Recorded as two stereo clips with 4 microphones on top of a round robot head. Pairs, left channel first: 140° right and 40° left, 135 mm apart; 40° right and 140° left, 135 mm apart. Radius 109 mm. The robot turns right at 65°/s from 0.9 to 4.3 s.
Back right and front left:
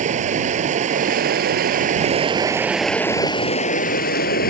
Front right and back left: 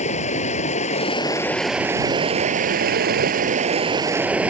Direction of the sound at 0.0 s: Straight ahead.